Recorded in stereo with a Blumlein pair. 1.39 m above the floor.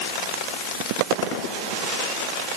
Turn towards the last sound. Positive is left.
No sound to turn to.